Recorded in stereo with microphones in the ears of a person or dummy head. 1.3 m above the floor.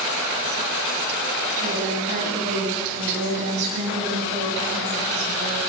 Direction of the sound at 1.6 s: 50° right (ahead or behind).